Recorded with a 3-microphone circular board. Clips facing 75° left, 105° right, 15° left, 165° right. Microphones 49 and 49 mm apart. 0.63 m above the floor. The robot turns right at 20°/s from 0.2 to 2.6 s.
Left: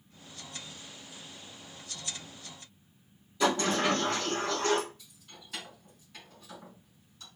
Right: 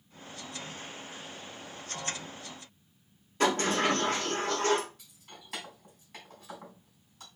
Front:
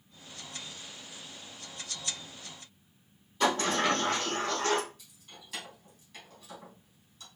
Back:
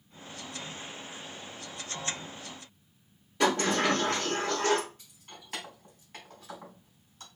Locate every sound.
3.4 s a sliding door: 145° right, 3.5 m
5.0 s keys jangling: 125° right, 3.5 m